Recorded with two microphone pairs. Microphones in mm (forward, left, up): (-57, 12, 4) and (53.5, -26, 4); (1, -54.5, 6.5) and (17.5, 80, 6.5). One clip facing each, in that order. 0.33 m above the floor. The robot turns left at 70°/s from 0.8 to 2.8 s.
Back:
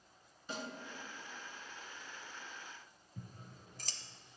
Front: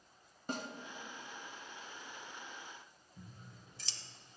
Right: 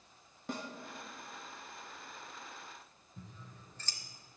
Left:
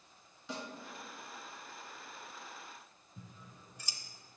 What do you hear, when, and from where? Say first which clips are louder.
0.5 s a snare drum: front 3 dB, right 2 dB; 60° right, 0.9 m
3.2 s scissors: back 3 dB, right 1 dB; 155° left, 0.6 m